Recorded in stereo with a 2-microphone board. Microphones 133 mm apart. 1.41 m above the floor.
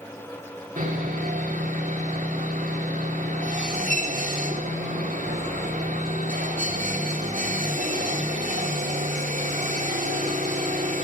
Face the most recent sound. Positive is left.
turn(degrees=-80)